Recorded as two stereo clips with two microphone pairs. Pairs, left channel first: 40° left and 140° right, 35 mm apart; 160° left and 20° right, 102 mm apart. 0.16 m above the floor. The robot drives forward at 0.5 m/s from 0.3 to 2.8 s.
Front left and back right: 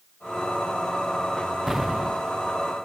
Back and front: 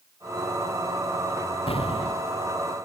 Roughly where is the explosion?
Behind left.